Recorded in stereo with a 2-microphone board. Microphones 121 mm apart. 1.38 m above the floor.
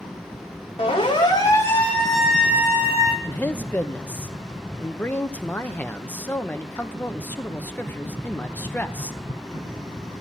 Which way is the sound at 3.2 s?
15° left (ahead or behind).